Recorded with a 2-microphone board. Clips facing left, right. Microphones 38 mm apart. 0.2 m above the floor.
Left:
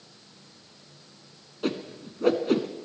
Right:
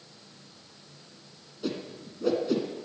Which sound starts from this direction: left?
A whoosh, at 1.6 s.